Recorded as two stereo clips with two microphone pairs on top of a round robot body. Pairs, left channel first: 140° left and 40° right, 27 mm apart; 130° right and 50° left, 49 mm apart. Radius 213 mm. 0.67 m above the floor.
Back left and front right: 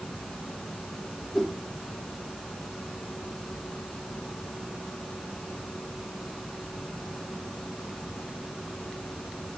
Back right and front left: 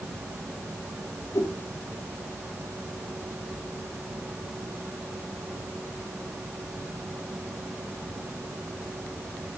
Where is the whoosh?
145° right, 2 m.